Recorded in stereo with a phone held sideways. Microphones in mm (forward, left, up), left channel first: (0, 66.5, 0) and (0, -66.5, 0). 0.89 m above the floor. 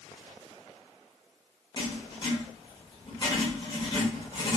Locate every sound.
1.8 s writing: 35° left (ahead or behind), 0.8 m